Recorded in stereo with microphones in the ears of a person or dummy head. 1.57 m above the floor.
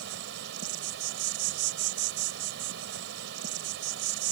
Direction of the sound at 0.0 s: 60° right (ahead or behind).